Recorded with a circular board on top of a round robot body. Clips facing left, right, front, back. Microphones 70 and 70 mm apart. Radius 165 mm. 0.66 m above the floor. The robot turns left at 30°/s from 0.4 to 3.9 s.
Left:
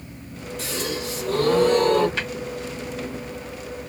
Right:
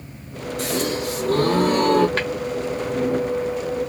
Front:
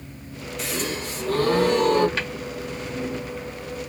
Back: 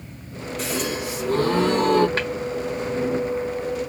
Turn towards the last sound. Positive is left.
turn(degrees=180)